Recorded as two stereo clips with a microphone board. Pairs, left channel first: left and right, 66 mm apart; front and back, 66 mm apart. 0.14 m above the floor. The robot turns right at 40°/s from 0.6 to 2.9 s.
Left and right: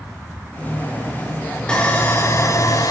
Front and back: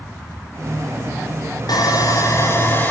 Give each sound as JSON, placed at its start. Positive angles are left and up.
{"t": 1.7, "sound": "sawing", "azimuth_deg": 10, "distance_m": 6.0}